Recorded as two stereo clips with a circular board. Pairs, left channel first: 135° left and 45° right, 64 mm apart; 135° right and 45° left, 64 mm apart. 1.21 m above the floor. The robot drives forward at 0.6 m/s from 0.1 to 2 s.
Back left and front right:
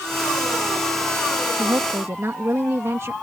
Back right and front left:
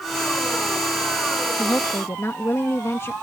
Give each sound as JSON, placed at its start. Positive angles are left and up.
{"t": 1.6, "sound": "a woman speaking", "azimuth_deg": -75}